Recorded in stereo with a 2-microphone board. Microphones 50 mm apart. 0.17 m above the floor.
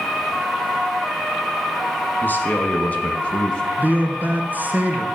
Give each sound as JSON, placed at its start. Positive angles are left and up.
{"t": 2.2, "sound": "a man speaking", "side_deg": 40, "distance_m": 1.6}
{"t": 3.8, "sound": "a man speaking", "side_deg": -35, "distance_m": 1.7}